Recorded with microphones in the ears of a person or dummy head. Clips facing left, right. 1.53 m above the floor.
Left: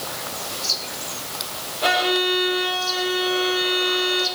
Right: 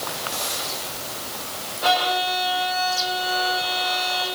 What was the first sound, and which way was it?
A violin, 40° left (ahead or behind).